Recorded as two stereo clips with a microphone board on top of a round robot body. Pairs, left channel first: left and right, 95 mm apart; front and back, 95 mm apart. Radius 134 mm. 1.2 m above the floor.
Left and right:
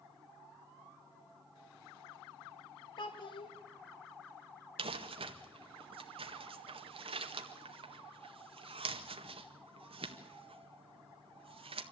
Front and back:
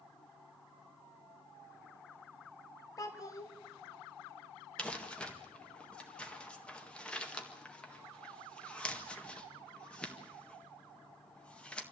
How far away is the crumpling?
About 1.8 m.